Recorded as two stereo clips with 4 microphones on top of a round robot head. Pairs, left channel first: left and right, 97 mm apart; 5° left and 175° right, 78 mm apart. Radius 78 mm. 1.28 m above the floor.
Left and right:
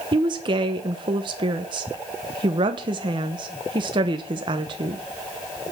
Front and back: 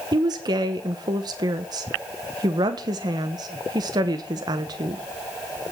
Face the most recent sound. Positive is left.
turn(degrees=-135)